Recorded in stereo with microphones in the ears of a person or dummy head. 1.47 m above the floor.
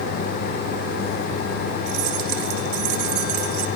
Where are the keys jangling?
75° right (ahead or behind), 3 m; by 3.7 s 60° right (ahead or behind), 2.5 m.